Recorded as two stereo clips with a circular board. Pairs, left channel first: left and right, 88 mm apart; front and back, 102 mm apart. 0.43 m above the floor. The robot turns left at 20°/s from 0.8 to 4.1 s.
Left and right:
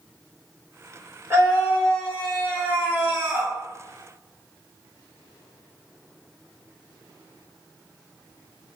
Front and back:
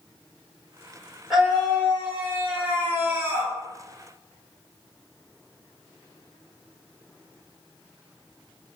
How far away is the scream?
About 1.6 m.